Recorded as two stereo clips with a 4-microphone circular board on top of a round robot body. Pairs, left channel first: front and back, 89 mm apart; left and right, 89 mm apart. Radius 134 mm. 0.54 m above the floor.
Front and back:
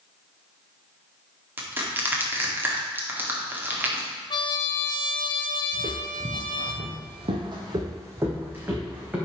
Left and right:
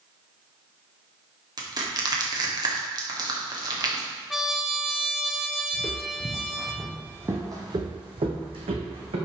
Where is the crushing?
120° right, 1.9 m.